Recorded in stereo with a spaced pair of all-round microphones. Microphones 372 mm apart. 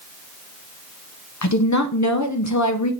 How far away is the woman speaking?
About 0.7 m.